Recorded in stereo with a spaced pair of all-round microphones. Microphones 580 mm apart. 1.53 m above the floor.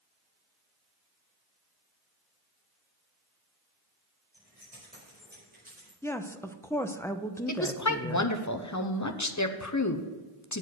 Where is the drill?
No drill in this recording.